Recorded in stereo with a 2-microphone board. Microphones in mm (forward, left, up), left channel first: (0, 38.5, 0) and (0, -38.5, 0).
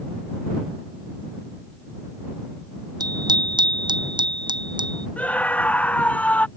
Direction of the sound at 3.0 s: 65° right (ahead or behind).